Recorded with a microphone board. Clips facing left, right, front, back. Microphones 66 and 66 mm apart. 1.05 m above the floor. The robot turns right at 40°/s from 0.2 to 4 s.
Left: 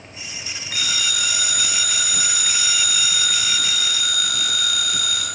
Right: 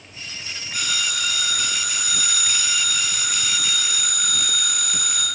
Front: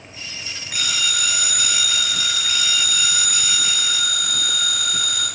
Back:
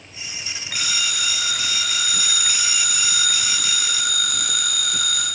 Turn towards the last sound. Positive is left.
turn(degrees=-150)